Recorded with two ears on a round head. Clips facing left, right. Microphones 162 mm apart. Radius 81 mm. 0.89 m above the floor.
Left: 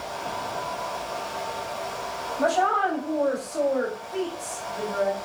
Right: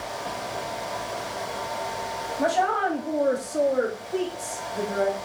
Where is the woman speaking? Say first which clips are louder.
Left 1 dB; 5° right (ahead or behind), 0.8 m; by 5.2 s 50° right (ahead or behind), 2.5 m.